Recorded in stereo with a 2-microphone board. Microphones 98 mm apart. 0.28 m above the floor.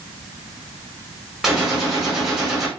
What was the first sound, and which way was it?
A gunshot, 5° right (ahead or behind).